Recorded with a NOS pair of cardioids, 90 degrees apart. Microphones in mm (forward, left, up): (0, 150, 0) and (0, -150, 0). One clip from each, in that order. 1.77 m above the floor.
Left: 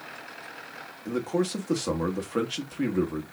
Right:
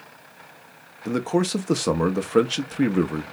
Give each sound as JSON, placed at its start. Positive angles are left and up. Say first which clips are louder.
{"t": 1.1, "sound": "a man speaking", "louder": "right 4 dB", "azimuth_deg": -35, "distance_m": 0.7}